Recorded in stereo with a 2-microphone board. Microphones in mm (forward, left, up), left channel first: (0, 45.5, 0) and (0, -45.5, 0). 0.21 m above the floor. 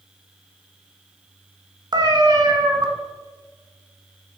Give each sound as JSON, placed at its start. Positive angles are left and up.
{"t": 1.9, "sound": "a cat meowing", "side_deg": -50, "distance_m": 1.2}